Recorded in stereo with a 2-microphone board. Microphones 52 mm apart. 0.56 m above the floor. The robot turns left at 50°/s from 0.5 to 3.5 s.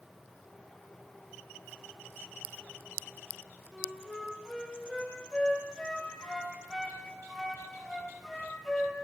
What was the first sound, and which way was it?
A flute, 5° left (ahead or behind).